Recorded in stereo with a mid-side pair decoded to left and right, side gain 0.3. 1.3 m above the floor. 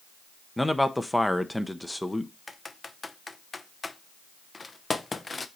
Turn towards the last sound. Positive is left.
turn(degrees=35)